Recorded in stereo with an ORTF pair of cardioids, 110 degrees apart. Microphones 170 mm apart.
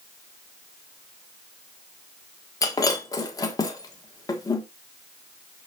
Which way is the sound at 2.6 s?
20° left.